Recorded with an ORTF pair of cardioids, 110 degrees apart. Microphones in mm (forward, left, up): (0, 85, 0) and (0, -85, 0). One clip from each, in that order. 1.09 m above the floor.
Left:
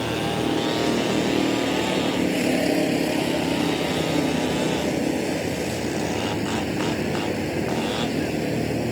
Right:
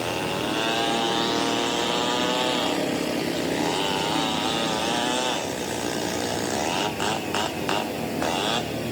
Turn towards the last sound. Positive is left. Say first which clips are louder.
# left 2 dB
turn(degrees=60)